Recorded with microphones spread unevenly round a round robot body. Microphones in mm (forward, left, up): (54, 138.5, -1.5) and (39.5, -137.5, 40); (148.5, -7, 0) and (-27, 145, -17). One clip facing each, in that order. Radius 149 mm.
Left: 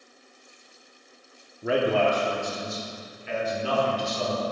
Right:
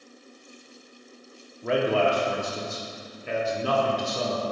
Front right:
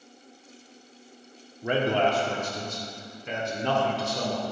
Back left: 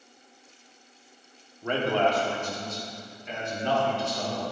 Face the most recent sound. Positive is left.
turn(degrees=-60)